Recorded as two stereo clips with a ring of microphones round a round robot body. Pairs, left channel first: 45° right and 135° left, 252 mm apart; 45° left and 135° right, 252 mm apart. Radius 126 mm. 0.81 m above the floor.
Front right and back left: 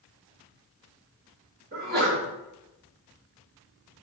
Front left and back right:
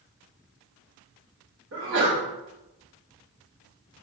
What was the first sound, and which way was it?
A sneeze, 175° right.